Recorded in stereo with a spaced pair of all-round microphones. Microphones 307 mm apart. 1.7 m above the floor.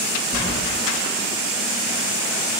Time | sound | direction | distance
0.3 | keys jangling | 35° right (ahead or behind) | 1.2 m